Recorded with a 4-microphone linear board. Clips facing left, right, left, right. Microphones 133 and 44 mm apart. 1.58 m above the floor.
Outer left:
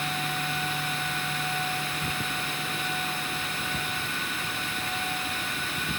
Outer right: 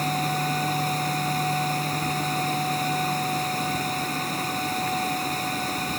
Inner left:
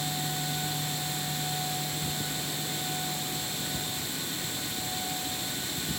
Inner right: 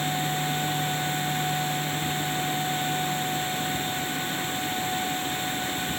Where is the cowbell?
I don't hear a cowbell.